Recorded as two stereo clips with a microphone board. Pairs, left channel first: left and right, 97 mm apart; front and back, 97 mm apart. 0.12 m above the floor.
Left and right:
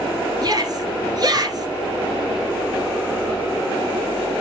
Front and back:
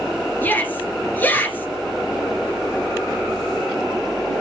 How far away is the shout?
About 2.5 m.